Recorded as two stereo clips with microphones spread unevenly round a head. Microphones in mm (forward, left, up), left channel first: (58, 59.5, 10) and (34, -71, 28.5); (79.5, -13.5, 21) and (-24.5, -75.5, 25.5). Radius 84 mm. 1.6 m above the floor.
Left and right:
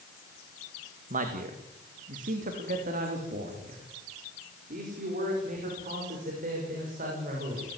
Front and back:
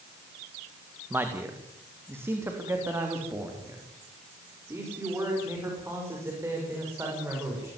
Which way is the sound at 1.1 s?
75° right.